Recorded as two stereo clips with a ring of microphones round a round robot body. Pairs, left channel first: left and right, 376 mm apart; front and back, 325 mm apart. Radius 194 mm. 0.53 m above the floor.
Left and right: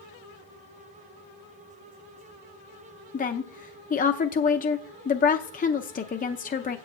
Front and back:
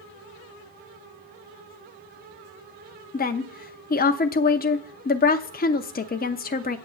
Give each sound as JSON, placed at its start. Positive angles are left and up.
{"t": 3.1, "sound": "a woman speaking", "azimuth_deg": 40, "distance_m": 0.7}